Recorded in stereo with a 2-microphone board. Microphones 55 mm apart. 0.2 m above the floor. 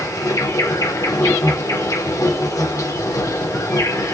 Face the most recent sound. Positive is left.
turn(degrees=80)